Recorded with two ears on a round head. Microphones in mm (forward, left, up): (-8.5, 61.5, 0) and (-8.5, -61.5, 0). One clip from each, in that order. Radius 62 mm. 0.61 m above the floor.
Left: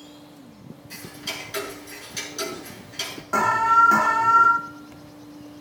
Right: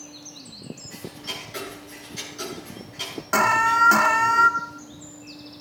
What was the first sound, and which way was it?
Ticking, 55° left (ahead or behind).